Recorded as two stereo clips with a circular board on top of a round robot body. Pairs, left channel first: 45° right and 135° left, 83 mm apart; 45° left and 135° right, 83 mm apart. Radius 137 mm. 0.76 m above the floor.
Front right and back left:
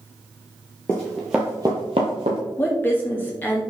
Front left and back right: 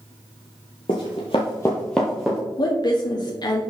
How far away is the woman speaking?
About 1.3 m.